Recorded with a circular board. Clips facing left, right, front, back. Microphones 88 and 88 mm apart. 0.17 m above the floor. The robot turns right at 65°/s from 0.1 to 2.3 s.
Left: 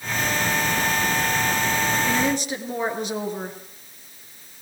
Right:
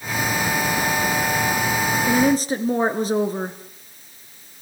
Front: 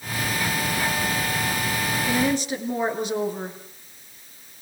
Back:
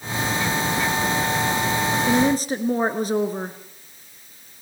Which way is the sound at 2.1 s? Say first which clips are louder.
Right 5 dB, back 3 dB; 150° right.